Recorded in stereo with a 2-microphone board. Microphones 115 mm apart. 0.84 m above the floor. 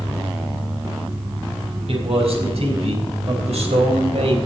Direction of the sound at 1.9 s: 65° right (ahead or behind).